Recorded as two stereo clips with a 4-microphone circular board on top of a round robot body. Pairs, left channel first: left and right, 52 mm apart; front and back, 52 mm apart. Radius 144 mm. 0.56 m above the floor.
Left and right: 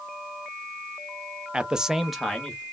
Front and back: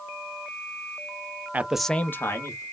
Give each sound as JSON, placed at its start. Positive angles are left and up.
{"t": 1.5, "sound": "a man speaking", "azimuth_deg": -150, "distance_m": 0.8}